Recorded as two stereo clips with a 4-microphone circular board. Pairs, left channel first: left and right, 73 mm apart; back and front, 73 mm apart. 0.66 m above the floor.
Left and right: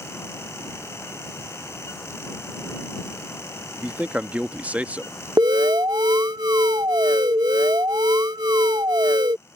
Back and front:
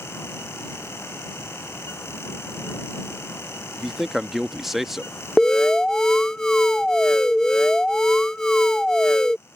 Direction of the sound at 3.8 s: 85° right.